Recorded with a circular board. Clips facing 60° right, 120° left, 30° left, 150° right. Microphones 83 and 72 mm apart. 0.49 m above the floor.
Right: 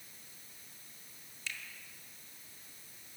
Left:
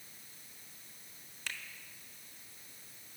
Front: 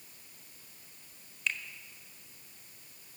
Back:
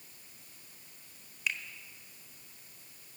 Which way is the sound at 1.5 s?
130° left.